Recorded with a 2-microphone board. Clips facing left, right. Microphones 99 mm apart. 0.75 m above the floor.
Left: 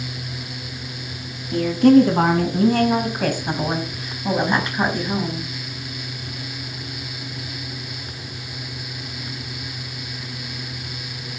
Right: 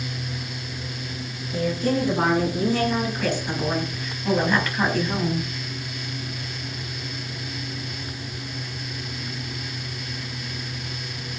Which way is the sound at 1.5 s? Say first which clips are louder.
Left 11 dB; 75° left (ahead or behind).